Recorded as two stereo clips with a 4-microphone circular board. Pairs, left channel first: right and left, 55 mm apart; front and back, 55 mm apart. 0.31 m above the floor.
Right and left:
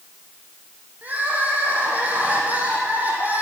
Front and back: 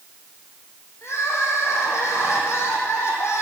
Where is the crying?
30° left, 3 m.